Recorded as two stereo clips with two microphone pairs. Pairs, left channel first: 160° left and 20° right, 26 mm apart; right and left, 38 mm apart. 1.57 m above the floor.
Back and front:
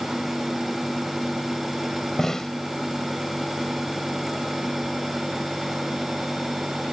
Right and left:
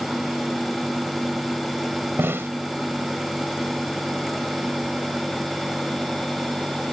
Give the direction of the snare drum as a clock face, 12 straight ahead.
9 o'clock.